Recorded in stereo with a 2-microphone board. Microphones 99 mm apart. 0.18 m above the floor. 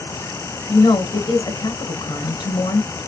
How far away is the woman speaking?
About 1.7 m.